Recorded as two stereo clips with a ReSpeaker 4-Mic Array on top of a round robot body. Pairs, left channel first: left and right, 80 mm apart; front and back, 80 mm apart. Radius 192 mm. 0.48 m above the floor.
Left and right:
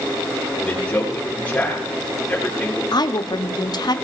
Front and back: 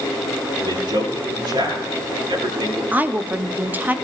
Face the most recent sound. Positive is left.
turn(degrees=115)